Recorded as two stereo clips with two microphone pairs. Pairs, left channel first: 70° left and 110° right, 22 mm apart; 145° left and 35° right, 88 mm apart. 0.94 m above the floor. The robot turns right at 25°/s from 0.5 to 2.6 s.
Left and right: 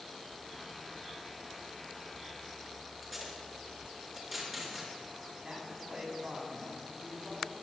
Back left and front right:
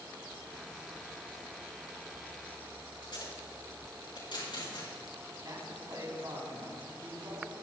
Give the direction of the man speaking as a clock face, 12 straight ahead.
2 o'clock.